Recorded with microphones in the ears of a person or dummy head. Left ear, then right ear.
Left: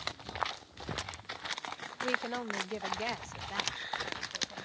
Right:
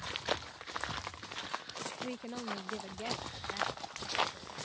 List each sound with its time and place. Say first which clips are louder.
2.0 s a woman speaking: left 7 dB; 45° left (ahead or behind); by 4.7 s 50° left (ahead or behind)